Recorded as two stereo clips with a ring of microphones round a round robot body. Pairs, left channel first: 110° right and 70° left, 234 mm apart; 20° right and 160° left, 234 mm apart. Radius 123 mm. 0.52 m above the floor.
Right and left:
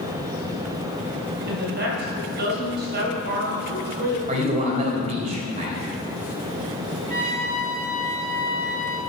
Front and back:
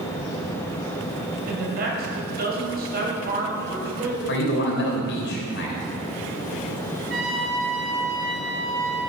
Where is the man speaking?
10° left, 2.5 m.